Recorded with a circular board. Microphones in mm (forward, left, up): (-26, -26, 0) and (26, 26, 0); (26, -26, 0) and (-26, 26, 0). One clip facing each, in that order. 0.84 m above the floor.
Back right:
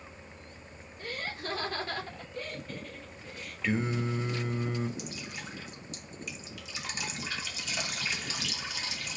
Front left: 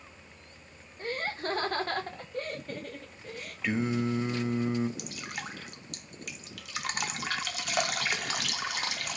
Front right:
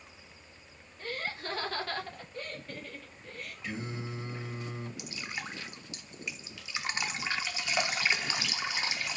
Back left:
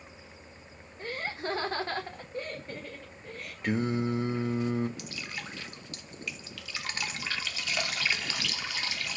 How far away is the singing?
About 0.6 m.